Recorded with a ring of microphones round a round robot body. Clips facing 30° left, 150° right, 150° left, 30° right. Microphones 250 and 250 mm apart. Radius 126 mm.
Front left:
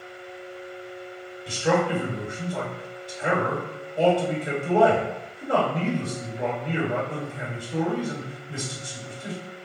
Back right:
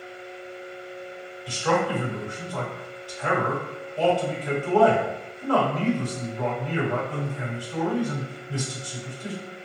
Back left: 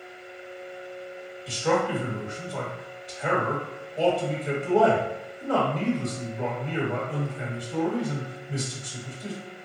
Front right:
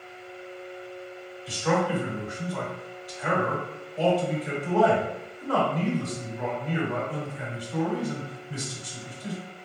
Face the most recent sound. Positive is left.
turn(degrees=90)